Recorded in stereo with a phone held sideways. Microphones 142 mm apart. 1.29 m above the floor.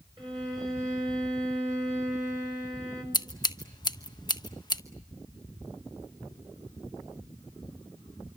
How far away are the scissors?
About 1.2 m.